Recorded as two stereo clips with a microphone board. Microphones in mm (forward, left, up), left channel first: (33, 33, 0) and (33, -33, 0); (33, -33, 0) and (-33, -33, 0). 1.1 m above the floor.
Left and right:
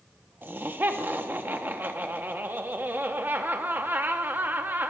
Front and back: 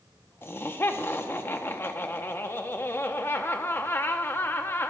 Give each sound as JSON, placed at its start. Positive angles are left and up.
{"t": 0.4, "sound": "laughter", "azimuth_deg": -40, "distance_m": 0.7}